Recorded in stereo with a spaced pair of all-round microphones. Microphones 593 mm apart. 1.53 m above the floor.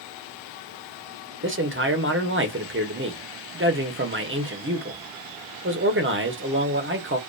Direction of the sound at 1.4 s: 20° right (ahead or behind).